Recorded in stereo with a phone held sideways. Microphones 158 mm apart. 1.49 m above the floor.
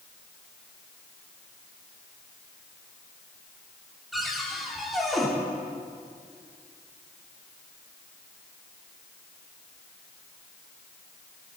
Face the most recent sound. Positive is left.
turn(degrees=0)  # may be behind; listen again after turning